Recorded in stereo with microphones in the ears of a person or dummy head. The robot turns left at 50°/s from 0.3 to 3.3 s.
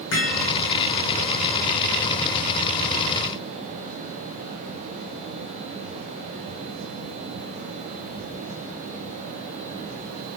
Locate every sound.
0.1 s hammering: 70° left (ahead or behind), 8 m; by 0.5 s 75° left (ahead or behind), 8 m